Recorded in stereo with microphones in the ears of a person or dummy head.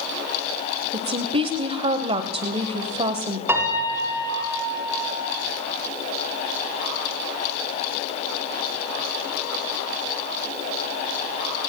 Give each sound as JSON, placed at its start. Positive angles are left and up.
{"t": 0.9, "sound": "a woman speaking", "side_deg": -30, "distance_m": 1.0}
{"t": 3.5, "sound": "a piano", "side_deg": -15, "distance_m": 2.5}